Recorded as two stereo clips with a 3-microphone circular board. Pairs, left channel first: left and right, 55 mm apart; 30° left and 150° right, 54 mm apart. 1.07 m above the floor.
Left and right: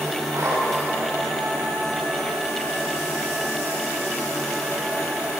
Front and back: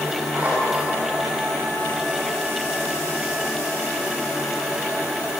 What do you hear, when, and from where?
0.3 s a zipper: 90° right, 8 m